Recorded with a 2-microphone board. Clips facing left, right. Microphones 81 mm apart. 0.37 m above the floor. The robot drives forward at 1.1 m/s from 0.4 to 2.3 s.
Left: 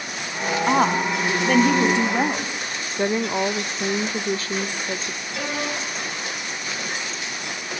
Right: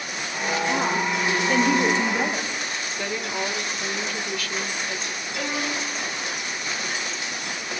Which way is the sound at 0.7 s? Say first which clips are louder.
Left 6 dB; 65° left (ahead or behind).